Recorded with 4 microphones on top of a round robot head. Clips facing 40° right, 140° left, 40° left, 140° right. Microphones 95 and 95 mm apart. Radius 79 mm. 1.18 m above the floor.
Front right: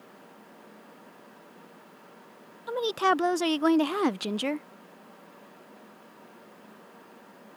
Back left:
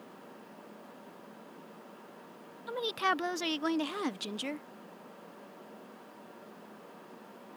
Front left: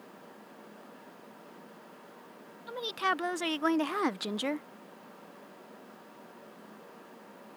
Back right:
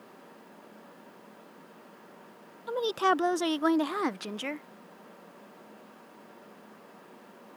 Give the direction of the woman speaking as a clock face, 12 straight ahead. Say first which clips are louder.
Front right 7 dB, back right 6 dB; 3 o'clock.